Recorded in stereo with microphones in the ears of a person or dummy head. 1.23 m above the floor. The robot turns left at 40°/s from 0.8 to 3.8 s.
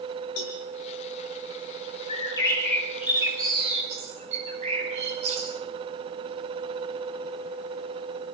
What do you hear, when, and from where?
0.4 s a cowbell: 80° left, 5 m
2.1 s a bird: 35° left, 9.5 m; by 5.5 s 35° right, 9.5 m